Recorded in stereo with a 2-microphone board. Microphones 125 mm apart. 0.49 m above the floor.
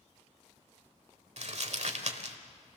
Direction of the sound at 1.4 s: 60° right (ahead or behind).